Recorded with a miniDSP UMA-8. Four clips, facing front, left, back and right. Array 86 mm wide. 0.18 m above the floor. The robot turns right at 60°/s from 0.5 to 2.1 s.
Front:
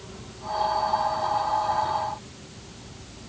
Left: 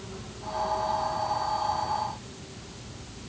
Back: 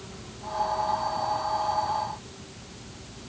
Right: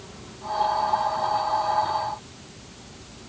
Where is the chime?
No chime in this recording.